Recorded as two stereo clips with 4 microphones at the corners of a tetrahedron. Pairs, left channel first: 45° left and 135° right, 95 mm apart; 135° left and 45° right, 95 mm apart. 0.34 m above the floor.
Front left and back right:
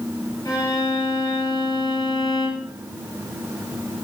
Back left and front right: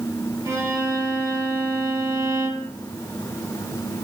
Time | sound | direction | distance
0.5 | a violin | 5° left | 2.5 m